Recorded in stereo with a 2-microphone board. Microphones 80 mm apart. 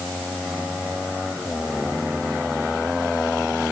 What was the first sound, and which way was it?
Only background noise.